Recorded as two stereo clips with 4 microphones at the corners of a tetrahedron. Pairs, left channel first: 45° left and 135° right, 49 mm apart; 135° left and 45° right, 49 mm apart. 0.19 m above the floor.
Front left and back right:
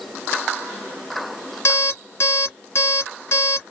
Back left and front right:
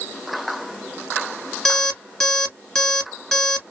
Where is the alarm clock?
60° left, 1.2 m.